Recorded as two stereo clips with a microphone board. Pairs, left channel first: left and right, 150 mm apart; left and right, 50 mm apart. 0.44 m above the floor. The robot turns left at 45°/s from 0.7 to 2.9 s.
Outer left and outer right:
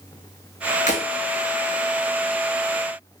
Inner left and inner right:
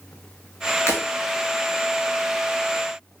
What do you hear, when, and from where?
0.9 s breaking glass: 55° left (ahead or behind), 2.5 m; by 1.0 s 65° left (ahead or behind), 2.5 m